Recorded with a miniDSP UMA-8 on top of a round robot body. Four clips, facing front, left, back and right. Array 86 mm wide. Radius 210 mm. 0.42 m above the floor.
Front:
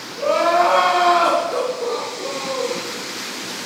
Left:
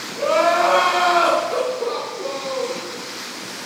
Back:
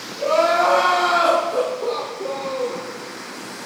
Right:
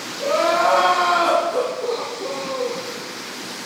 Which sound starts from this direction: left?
Crying, at 0.2 s.